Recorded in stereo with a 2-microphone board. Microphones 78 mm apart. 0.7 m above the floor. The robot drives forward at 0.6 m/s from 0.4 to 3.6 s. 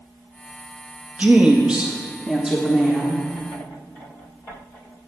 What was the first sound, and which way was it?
A woman speaking, 20° right (ahead or behind).